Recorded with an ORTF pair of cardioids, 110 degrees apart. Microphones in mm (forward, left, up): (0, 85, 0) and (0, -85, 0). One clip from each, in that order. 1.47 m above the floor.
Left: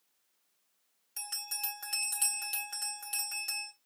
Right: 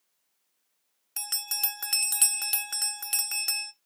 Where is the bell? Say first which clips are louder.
Right 7 dB; 50° right, 0.9 m.